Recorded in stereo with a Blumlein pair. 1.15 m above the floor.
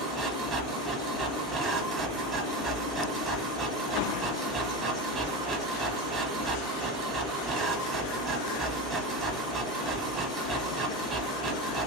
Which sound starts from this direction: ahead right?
A machine running, at 0.0 s.